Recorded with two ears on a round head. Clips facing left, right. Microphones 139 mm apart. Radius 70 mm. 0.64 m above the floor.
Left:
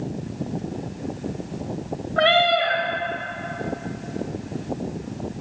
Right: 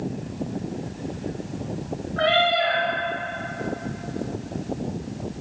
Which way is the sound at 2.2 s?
70° left (ahead or behind).